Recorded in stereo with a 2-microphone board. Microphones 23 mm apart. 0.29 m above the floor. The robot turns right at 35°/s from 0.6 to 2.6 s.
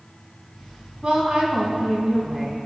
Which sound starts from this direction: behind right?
A woman speaking, at 1.0 s.